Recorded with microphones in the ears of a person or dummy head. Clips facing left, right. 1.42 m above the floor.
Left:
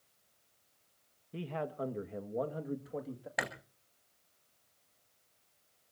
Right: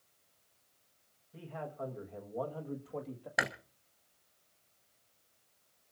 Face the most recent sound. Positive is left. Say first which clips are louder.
# right 2 dB
turn(degrees=-10)  # may be behind; listen again after turning